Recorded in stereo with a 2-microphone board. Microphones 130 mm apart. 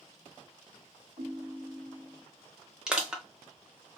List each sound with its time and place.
1.2 s a ringtone: 85° right, 1.2 m
2.9 s crushing: 5° right (ahead or behind), 0.8 m